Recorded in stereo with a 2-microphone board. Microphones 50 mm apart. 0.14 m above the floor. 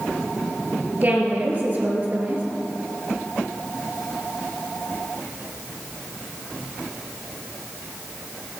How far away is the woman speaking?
About 2.5 m.